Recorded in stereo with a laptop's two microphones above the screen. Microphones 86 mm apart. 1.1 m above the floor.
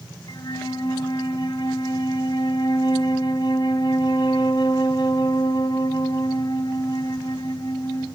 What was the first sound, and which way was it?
A flute, 50° left (ahead or behind).